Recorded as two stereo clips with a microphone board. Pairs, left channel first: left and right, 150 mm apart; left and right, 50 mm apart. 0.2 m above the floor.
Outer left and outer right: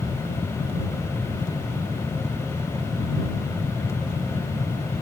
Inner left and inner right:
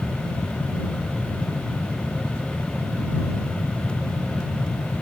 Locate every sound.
Only background noise.